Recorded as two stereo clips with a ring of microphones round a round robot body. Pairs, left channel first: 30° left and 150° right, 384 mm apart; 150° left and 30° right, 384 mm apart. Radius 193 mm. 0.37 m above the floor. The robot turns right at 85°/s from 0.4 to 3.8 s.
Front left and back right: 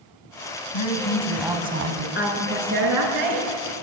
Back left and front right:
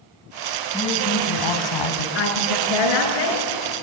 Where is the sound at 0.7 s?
65° left, 3.5 m; by 2.0 s 175° left, 3.5 m.